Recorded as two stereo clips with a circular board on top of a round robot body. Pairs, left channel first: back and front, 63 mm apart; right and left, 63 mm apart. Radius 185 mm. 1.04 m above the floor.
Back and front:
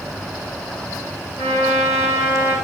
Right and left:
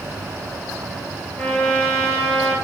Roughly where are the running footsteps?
I don't hear running footsteps.